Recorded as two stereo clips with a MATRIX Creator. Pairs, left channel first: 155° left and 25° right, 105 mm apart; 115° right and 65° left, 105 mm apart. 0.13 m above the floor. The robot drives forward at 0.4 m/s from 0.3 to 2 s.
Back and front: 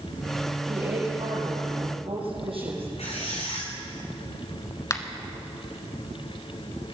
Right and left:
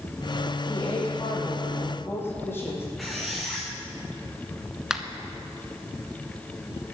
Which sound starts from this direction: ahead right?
A woman speaking, at 0.7 s.